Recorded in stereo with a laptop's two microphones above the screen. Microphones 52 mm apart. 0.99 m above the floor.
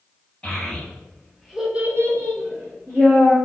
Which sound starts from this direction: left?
A child speaking, at 0.4 s.